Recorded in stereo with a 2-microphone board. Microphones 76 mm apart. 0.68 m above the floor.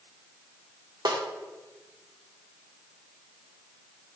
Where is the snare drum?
65° right (ahead or behind), 0.9 m.